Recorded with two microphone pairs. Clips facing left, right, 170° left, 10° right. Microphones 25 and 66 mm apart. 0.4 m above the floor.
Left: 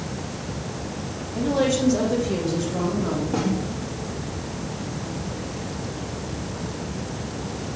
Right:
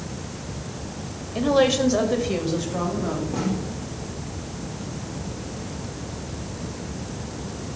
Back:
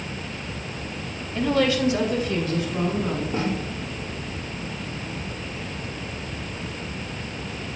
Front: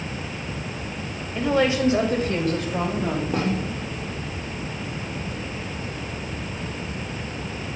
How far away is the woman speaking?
About 2 m.